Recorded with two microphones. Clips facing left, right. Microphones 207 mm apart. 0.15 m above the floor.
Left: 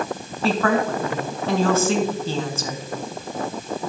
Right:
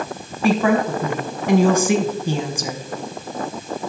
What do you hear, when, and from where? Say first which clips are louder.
0.4 s a woman speaking: right 3 dB; 15° right (ahead or behind), 1.1 m